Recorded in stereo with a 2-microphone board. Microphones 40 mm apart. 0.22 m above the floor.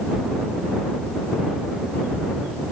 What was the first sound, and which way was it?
Only background noise.